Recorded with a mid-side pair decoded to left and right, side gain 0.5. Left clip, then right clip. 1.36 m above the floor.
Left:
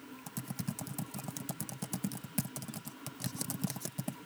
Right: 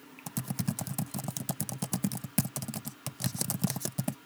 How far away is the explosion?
I don't hear an explosion.